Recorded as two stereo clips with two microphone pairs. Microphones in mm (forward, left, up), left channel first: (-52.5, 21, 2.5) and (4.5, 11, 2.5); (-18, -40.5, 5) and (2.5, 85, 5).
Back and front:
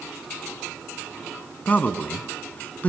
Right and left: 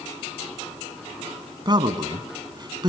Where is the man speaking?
120° left, 1.7 m.